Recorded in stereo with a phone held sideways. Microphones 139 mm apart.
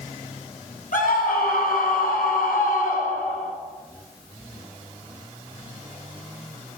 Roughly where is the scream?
Left.